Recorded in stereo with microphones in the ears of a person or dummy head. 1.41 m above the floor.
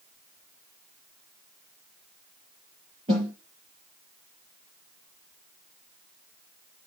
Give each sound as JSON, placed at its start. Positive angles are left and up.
{"t": 3.1, "sound": "a snare drum", "side_deg": -30, "distance_m": 5.5}